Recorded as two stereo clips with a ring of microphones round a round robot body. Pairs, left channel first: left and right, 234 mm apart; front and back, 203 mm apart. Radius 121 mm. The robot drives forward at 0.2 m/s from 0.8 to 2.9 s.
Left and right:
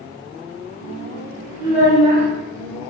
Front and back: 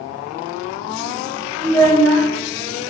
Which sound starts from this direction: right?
A child speaking, at 1.6 s.